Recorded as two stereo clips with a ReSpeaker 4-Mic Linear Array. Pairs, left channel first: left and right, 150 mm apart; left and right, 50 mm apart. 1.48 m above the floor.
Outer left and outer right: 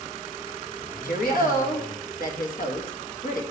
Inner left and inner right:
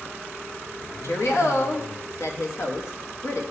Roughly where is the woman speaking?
Left.